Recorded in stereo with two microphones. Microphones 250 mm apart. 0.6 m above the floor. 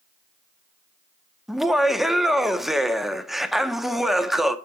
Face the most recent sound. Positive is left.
turn(degrees=0)  # may be behind; listen again after turning